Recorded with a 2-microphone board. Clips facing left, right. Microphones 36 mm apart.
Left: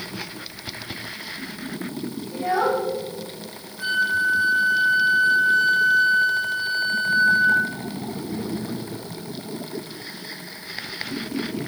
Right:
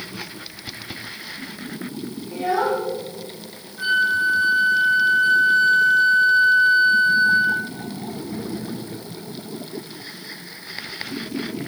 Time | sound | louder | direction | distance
2.3 | a child speaking | even | 80° right | 5 m
3.8 | a flute | right 2 dB | 30° right (ahead or behind) | 2.0 m